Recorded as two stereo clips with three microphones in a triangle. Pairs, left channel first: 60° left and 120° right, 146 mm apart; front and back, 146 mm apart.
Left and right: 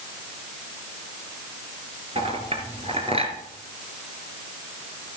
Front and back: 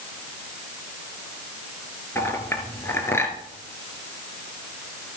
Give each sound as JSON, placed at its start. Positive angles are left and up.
{"t": 2.1, "sound": "a clink", "azimuth_deg": -75, "distance_m": 2.5}